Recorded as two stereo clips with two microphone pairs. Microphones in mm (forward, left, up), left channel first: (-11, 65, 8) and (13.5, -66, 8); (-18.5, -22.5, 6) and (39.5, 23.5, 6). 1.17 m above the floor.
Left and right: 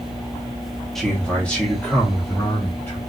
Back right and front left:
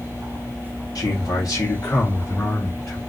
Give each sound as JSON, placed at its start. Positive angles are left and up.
{"t": 0.9, "sound": "a man speaking", "azimuth_deg": -170, "distance_m": 1.0}